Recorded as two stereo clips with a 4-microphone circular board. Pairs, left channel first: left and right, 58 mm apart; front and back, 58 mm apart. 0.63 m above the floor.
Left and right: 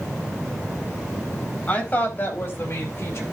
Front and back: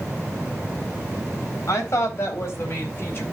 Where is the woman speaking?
30° left, 4 m; by 3.2 s 50° left, 5 m.